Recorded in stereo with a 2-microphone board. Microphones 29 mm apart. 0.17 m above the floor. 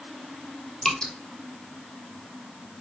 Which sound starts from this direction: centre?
Dripping, at 0.8 s.